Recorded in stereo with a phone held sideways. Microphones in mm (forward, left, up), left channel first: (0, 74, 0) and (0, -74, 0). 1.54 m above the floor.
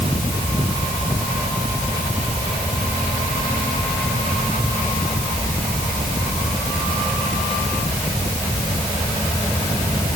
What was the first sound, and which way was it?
Only background noise.